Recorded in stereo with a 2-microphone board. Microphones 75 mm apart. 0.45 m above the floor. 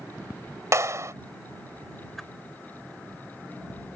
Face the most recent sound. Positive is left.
turn(degrees=5)  # may be behind; listen again after turning